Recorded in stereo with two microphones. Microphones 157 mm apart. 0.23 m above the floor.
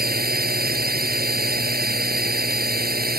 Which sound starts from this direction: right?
A drone, at 0.0 s.